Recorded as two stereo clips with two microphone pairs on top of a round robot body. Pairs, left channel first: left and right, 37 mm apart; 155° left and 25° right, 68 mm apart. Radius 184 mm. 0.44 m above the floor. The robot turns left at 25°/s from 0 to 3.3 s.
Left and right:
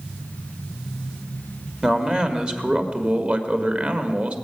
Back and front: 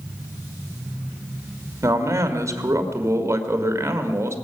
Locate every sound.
1.8 s a man speaking: 25° right, 1.8 m; by 4.3 s 65° right, 1.8 m